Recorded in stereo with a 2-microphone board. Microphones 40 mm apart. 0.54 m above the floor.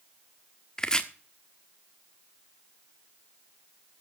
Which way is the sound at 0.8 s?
20° left (ahead or behind).